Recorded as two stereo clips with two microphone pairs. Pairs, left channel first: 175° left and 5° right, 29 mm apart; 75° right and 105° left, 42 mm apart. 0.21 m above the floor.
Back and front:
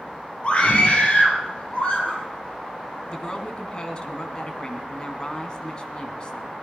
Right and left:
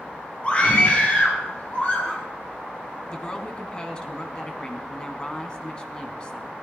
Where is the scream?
135° right, 4 m; by 2.2 s 130° right, 5.5 m.